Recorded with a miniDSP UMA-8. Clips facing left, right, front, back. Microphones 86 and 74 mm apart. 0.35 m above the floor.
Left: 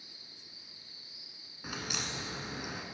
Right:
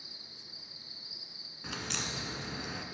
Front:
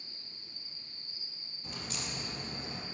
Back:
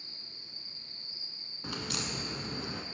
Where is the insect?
165° right, 3 m.